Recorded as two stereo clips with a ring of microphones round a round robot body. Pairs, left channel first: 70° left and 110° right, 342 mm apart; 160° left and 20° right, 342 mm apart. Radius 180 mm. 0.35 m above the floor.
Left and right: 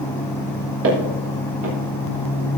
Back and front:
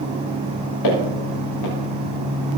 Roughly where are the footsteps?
Behind.